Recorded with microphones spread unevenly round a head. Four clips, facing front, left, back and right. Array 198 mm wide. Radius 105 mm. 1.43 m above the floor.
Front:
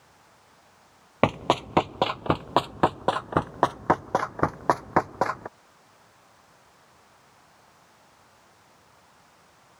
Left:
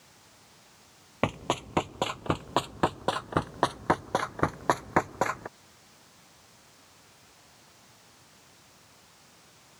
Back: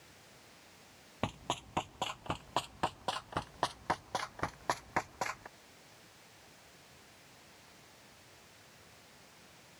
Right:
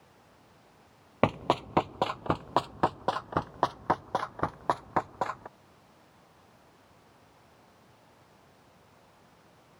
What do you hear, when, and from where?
1.2 s running footsteps: 5° right; by 5.5 s 30° left